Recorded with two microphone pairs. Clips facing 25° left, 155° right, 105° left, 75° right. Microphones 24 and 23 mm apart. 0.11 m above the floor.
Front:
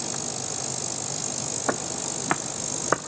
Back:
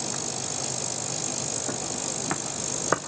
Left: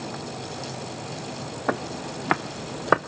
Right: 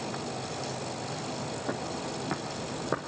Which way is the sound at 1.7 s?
70° left.